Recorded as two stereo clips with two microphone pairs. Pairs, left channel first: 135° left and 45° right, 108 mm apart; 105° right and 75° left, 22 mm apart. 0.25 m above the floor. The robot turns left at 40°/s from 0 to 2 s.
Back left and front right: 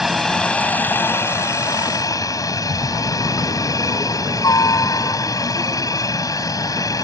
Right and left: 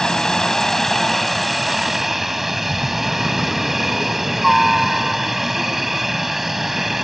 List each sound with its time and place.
0.0 s a helicopter: 130° right; by 7.0 s 150° left